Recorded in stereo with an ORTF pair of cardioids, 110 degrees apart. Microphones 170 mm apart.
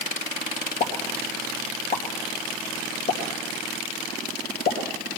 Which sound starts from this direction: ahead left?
A pop, at 0.8 s.